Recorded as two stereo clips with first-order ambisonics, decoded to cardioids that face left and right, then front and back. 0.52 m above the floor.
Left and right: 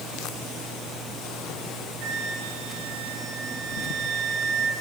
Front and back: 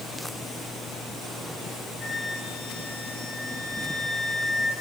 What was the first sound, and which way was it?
A flute, 65° right.